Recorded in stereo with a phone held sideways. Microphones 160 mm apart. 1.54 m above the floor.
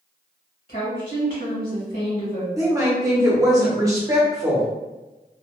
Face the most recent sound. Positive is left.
turn(degrees=-20)  # may be behind; listen again after turning